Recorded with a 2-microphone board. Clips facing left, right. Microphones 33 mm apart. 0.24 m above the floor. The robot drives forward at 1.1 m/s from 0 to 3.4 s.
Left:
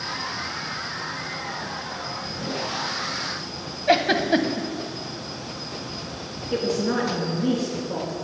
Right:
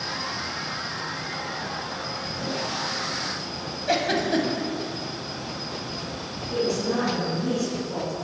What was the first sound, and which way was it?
A giggle, 30° left (ahead or behind).